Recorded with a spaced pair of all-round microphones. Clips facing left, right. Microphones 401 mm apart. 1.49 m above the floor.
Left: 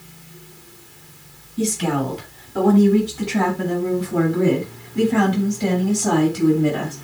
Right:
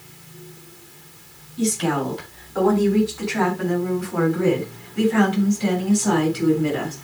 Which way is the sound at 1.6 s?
45° left (ahead or behind).